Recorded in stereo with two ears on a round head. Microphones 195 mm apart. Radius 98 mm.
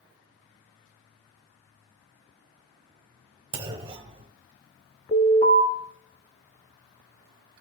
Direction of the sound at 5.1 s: 35° left (ahead or behind).